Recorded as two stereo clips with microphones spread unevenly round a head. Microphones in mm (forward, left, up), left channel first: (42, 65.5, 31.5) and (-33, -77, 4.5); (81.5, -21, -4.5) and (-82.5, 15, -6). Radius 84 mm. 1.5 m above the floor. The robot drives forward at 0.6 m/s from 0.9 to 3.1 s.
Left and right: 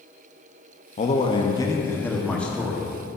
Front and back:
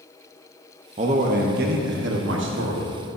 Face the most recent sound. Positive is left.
turn(degrees=155)